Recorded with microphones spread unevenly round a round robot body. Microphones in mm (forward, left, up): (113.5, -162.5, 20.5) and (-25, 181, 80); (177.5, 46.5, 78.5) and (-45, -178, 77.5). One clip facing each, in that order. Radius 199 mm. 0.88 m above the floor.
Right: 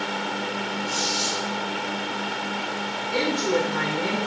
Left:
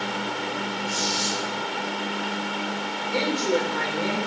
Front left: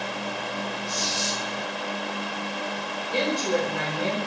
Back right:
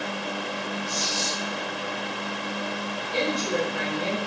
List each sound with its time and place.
0.9 s a squeak: 155° right, 4 m
3.1 s a woman speaking: straight ahead, 4.5 m